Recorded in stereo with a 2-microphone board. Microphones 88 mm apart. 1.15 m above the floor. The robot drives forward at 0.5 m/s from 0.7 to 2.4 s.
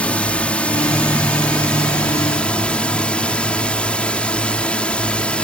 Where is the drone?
15° left (ahead or behind).